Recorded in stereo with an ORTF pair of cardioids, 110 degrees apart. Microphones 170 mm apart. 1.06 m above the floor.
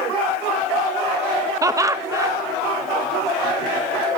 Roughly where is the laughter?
Ahead.